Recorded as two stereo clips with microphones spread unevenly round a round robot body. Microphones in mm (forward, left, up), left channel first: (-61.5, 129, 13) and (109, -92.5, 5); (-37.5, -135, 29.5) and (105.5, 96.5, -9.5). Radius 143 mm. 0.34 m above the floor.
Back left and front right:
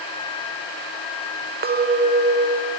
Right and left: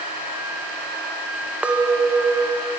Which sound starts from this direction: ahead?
A clink, at 1.6 s.